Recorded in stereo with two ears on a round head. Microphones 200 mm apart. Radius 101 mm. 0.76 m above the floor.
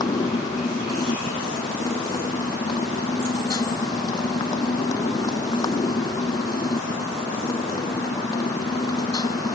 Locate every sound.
0.0 s a motorcycle: 20° left (ahead or behind)